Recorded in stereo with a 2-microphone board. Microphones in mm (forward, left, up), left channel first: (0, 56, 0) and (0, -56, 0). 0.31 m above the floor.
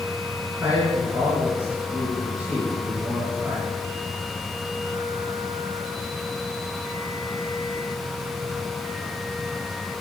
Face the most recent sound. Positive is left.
turn(degrees=-10)  # may be behind; listen again after turning